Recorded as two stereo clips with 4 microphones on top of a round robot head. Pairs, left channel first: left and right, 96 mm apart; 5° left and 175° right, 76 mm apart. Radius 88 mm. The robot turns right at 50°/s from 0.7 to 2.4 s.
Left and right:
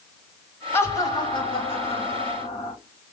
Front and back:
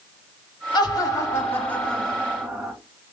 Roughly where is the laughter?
Ahead left.